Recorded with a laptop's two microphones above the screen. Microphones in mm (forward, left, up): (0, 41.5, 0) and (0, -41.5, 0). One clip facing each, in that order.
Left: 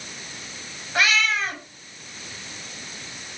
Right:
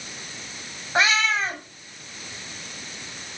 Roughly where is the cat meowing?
Right.